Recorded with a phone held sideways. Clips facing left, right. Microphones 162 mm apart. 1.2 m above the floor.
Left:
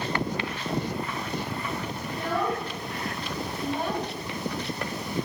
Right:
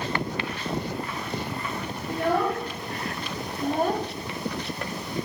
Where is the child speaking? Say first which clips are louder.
Right 4 dB; 60° right (ahead or behind), 2 m; by 4.0 s 35° right (ahead or behind), 0.8 m.